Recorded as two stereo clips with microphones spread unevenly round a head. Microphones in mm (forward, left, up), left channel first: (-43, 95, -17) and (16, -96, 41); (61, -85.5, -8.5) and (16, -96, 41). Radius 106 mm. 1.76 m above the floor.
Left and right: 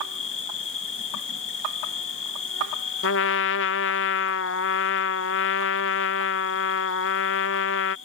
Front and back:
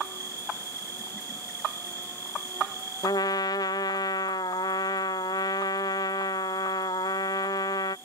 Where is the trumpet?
70° left.